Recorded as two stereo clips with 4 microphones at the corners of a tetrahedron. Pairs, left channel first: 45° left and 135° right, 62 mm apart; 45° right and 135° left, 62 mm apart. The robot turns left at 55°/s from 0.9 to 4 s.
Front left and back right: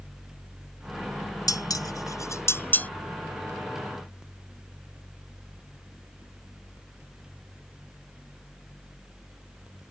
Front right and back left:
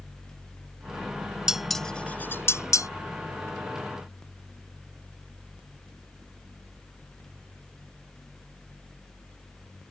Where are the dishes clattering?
55° left; by 2.9 s 20° right.